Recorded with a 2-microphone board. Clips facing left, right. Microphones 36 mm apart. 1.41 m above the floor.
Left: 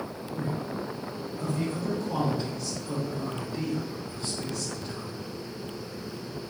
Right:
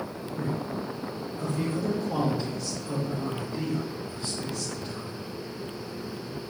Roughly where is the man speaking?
Centre.